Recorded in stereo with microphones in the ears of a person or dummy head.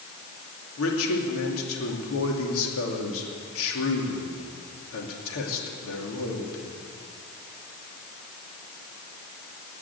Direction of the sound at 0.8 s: 75° left (ahead or behind).